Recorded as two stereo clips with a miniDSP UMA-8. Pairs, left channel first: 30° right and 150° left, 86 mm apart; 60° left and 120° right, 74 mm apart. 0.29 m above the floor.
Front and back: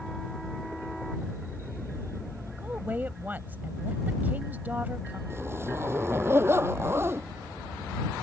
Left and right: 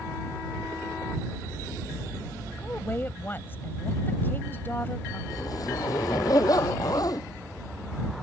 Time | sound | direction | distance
2.6 | a woman speaking | 95° left | ?
5.3 | a zipper | 90° left | ?